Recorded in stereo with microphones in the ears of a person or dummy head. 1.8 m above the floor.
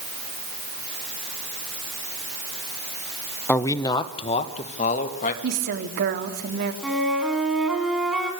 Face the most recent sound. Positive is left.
turn(degrees=0)  # may be behind; listen again after turning